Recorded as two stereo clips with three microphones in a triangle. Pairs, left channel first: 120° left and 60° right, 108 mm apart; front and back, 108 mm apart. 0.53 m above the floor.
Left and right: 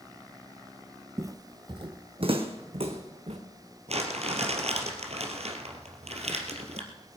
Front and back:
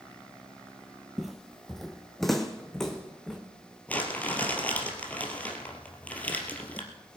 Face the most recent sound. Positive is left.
turn(degrees=-75)